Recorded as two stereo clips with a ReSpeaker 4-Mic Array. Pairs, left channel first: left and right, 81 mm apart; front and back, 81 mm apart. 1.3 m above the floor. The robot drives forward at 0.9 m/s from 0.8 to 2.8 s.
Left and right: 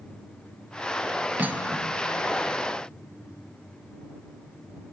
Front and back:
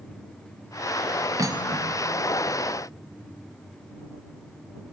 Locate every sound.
1.4 s cutlery clinking: 150° right, 0.7 m; by 2.3 s 165° right, 1.4 m